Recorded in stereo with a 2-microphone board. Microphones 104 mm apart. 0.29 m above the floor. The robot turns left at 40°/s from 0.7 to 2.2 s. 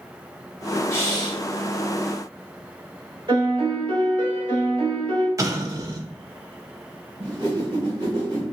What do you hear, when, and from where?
0.9 s breathing: 25° left (ahead or behind), 0.7 m; by 1.4 s 45° left (ahead or behind), 0.7 m
3.3 s a piano: 50° right (ahead or behind), 1.6 m
5.4 s an explosion: 30° right (ahead or behind), 0.6 m
7.2 s a whoosh: 45° right (ahead or behind), 1.8 m